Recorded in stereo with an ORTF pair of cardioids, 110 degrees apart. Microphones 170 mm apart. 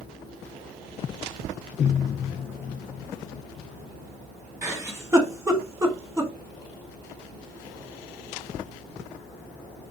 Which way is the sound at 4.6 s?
15° right.